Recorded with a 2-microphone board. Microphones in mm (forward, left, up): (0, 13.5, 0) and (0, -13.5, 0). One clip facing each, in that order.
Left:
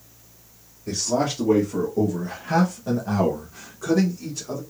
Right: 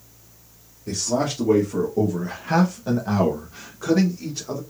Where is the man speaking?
5° left (ahead or behind), 1.3 m; by 4.6 s 30° right (ahead or behind), 1.7 m.